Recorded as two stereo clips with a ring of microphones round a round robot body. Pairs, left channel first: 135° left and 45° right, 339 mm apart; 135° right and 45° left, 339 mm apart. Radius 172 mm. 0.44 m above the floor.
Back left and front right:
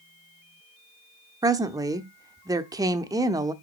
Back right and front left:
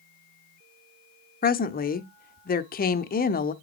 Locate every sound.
1.4 s a woman speaking: 110° right, 0.8 m